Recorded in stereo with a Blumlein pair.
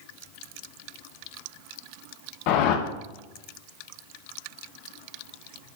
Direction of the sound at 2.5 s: 45° left.